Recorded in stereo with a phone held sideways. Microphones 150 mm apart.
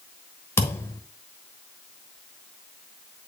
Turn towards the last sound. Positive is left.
turn(degrees=15)  # may be behind; listen again after turning